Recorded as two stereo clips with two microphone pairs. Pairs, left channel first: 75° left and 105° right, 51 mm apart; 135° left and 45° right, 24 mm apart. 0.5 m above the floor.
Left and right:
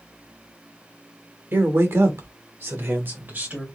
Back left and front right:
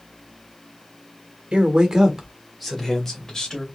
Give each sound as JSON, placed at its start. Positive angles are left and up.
{"t": 1.5, "sound": "a man speaking", "azimuth_deg": -75, "distance_m": 1.4}